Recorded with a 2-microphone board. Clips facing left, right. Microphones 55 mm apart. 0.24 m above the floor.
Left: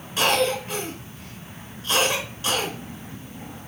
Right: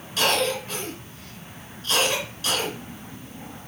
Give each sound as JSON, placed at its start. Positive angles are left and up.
{"t": 0.2, "sound": "a cough", "side_deg": 35, "distance_m": 2.5}